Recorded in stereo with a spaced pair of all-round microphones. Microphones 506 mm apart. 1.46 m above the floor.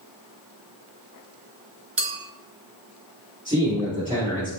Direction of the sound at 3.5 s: 15° right (ahead or behind).